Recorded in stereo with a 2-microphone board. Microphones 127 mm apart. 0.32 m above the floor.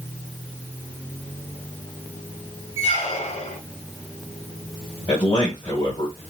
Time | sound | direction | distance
2.8 | a squeak | 50° left (ahead or behind) | 0.8 m
5.1 | a man speaking | 25° left (ahead or behind) | 1.4 m